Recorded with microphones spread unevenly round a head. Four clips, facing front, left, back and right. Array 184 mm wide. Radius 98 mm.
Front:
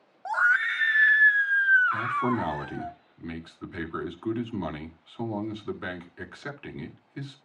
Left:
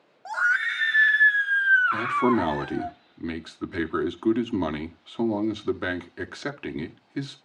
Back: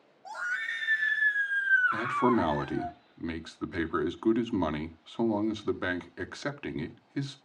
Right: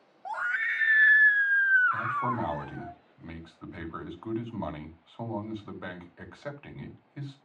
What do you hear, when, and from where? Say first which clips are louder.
0.2 s a scream: left 6 dB, front 11 dB; 5° left, 1.4 m; by 2.9 s 75° left, 2.0 m
1.9 s a man speaking: left 7 dB, back 1 dB; 110° left, 2 m